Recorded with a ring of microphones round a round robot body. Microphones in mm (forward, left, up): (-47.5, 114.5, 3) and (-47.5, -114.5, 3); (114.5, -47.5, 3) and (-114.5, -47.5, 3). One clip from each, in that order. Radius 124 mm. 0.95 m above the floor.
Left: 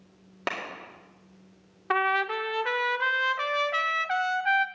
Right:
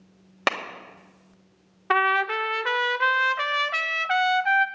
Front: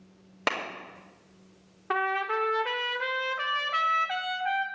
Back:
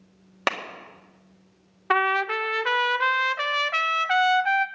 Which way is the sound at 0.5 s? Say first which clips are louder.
Right 7 dB, back 3 dB; 120° right.